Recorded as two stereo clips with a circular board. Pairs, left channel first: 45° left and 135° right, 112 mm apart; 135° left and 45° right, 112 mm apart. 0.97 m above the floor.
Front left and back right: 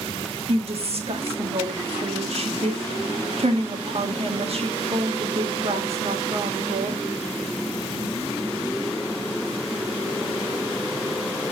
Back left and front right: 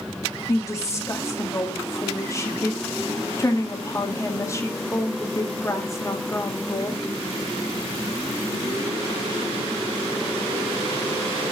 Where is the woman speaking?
165° right, 1.5 m.